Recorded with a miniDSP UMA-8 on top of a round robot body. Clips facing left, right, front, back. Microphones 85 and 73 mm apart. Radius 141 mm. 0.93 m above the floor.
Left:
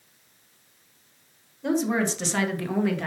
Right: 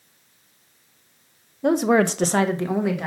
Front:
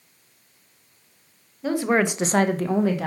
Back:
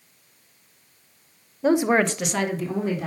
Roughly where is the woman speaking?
Behind right.